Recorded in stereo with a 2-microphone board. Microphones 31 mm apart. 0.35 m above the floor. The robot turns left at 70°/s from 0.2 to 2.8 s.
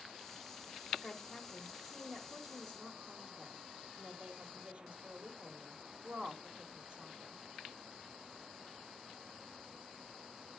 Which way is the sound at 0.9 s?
20° left.